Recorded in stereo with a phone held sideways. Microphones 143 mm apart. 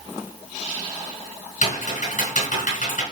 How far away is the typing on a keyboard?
About 3.5 m.